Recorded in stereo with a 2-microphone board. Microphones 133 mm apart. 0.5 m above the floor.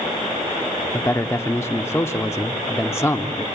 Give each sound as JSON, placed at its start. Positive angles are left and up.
{"t": 0.9, "sound": "a man speaking", "side_deg": 20, "distance_m": 0.7}